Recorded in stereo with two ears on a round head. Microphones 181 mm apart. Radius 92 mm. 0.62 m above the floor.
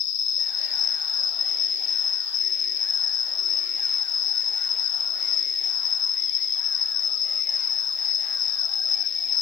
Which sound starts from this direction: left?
An insect, at 0.0 s.